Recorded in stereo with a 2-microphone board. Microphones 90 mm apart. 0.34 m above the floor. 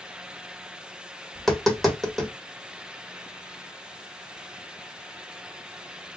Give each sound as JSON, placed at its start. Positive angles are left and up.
{"t": 1.4, "sound": "tapping", "side_deg": 0, "distance_m": 1.5}